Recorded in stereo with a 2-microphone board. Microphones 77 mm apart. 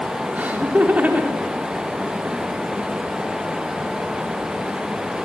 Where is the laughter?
25° right (ahead or behind), 4 m.